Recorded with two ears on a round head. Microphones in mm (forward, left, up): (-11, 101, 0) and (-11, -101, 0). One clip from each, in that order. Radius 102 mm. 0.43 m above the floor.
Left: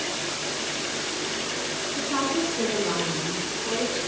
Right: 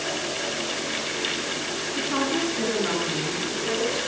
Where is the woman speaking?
70° right (ahead or behind), 5.5 m; by 4.0 s 65° right (ahead or behind), 7.5 m.